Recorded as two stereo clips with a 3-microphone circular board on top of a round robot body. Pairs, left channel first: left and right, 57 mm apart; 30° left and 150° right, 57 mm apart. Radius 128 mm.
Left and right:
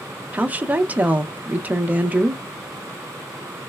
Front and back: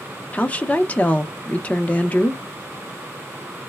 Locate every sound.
0.3 s a woman speaking: 30° right, 0.6 m